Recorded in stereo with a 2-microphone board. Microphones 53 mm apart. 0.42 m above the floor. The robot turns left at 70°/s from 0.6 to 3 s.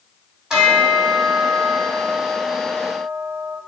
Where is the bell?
160° right, 1.4 m; by 3.6 s 35° left, 1.4 m.